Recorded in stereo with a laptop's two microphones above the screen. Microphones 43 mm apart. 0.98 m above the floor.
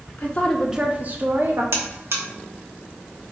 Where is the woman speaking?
40° left (ahead or behind), 0.7 m; by 1.6 s 55° right (ahead or behind), 1.4 m.